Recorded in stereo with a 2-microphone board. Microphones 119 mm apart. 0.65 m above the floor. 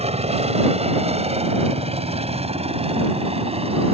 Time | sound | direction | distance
0.0 | a helicopter | 60° right (ahead or behind) | ?